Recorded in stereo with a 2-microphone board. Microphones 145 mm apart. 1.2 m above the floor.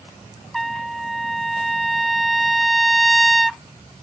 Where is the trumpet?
Centre (ahead or behind).